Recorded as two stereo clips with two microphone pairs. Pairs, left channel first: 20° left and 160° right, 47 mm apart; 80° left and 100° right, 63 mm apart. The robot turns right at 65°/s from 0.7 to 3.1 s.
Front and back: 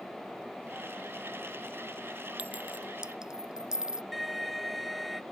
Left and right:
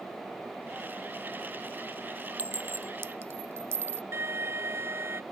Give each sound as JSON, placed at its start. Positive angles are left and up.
{"t": 2.4, "sound": "a clink", "azimuth_deg": -145}
{"t": 4.1, "sound": "an alarm", "azimuth_deg": -70}